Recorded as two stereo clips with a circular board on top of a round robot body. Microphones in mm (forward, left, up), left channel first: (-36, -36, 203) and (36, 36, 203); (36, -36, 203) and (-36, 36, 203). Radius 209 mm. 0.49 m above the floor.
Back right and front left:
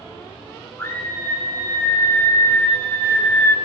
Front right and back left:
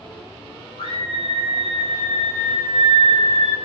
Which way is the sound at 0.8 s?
70° right.